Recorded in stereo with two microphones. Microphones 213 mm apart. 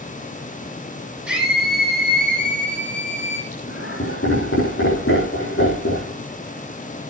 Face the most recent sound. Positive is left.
turn(degrees=75)  # may be behind; listen again after turning